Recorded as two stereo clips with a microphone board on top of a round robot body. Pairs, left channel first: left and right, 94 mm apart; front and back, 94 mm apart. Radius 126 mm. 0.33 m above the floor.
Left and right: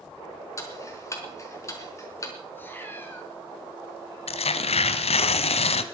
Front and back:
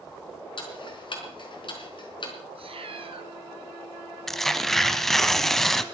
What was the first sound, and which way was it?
Ticking, 30° left.